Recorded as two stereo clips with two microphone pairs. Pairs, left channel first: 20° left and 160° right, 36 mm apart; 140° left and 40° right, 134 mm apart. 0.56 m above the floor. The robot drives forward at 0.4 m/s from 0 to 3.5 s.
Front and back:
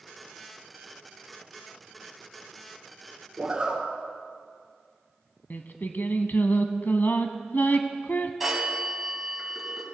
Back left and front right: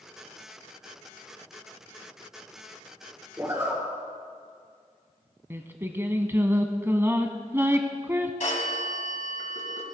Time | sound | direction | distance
3.4 | a zipper | 105° right | 2 m
5.5 | singing | 30° left | 0.7 m
8.4 | a phone ringing | 115° left | 2.5 m